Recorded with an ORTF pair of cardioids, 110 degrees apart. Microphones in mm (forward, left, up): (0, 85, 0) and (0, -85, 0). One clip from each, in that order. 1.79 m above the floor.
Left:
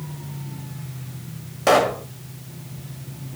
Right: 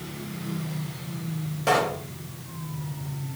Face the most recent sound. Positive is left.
turn(degrees=45)